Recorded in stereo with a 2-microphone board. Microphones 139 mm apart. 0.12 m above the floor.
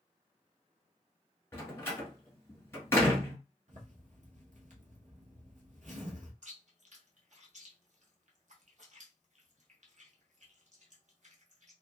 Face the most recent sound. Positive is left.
turn(degrees=-60)  # may be behind; listen again after turning